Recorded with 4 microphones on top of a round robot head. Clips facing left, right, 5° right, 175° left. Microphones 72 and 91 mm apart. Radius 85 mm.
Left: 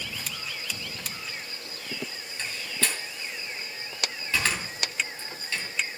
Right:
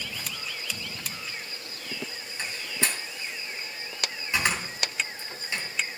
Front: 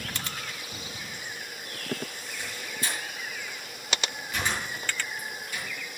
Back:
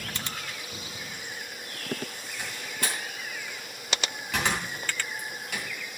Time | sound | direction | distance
2.4 | a door slam | 165° right | 3 m